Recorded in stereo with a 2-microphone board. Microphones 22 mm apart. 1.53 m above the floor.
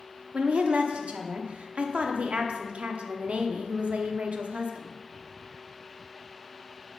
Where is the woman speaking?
70° right (ahead or behind), 0.8 m.